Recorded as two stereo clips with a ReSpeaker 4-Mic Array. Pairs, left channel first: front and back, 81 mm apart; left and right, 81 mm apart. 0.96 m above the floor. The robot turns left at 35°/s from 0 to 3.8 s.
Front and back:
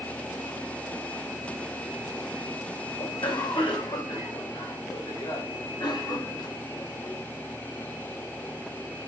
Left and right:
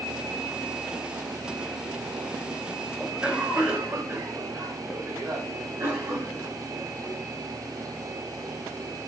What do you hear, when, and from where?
3.0 s a cough: 5° right, 4 m; by 7.2 s 30° right, 4 m